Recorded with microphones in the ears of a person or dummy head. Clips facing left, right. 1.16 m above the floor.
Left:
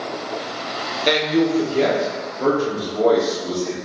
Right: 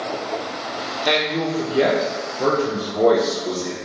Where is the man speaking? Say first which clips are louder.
Left 4 dB; 20° left (ahead or behind), 0.7 m; by 3.8 s 40° right (ahead or behind), 1.7 m.